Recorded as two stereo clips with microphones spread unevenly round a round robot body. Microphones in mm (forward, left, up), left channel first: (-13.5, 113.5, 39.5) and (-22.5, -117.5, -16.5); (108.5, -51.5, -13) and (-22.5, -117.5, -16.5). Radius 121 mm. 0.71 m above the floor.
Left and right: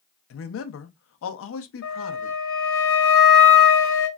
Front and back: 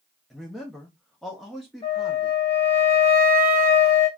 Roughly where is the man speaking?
Behind left.